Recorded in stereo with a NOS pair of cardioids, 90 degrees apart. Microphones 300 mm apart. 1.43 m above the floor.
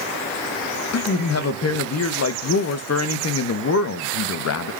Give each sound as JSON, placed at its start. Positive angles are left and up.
{"t": 0.9, "sound": "a man speaking", "azimuth_deg": 55, "distance_m": 0.7}